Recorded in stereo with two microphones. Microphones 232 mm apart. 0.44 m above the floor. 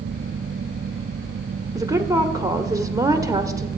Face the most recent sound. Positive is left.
turn(degrees=-15)  # may be behind; listen again after turning